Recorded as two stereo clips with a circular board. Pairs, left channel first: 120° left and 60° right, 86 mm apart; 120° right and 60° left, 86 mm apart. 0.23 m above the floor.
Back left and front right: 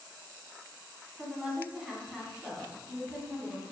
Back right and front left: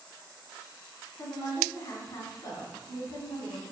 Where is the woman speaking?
135° right, 2 m.